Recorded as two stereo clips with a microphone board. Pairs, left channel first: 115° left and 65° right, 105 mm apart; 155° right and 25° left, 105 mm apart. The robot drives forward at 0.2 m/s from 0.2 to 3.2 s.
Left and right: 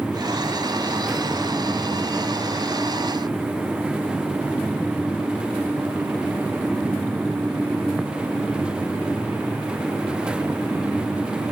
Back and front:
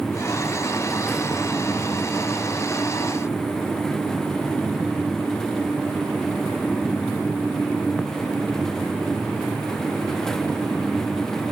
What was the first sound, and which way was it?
Only background noise.